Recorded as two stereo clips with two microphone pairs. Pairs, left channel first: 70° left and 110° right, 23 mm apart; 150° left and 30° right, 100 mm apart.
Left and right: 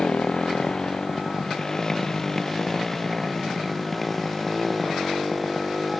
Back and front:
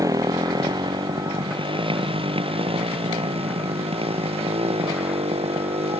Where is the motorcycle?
25° left; by 6.0 s 20° right.